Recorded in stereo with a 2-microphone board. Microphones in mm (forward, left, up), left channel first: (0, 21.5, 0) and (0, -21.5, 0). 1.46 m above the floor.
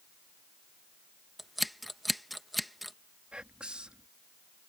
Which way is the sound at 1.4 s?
Centre (ahead or behind).